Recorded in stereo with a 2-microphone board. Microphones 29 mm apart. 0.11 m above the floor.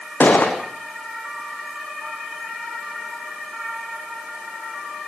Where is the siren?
No siren in this recording.